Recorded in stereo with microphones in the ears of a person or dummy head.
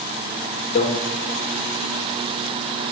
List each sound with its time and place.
0.8 s a microwave: 45° left (ahead or behind), 2 m